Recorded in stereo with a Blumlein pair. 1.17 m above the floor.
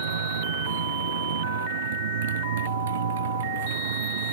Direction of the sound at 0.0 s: 60° right.